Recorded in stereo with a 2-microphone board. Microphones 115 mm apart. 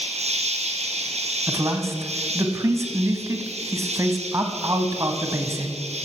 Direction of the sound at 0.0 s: 80° right.